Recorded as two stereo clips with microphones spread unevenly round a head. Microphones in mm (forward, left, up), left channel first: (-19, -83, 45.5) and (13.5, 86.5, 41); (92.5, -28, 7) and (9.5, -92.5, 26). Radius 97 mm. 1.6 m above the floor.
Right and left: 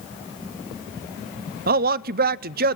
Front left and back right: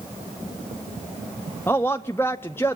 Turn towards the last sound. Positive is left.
turn(degrees=120)